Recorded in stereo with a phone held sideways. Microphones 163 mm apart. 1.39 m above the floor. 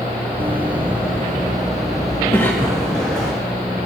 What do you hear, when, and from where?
0.4 s running footsteps: 15° right (ahead or behind), 1.5 m; by 3.3 s 5° left (ahead or behind), 5 m
2.3 s a cough: 15° left (ahead or behind), 1.8 m